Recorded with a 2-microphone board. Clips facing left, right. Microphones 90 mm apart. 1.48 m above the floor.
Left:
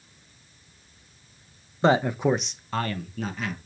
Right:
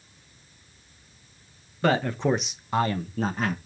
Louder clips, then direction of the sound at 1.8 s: Left 2 dB; 25° left (ahead or behind).